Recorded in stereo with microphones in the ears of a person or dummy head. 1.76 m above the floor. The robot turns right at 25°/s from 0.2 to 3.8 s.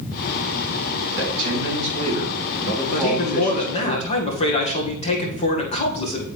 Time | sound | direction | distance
1.2 | a man speaking | 55° right | 4 m
2.9 | a man speaking | 55° left (ahead or behind) | 1.7 m